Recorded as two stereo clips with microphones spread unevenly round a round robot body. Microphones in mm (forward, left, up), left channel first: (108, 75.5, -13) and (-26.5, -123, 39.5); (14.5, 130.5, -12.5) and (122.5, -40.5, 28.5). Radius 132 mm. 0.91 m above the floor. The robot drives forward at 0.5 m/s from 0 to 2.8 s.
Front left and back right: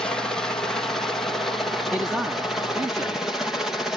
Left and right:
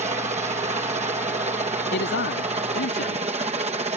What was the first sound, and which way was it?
A helicopter, 15° right.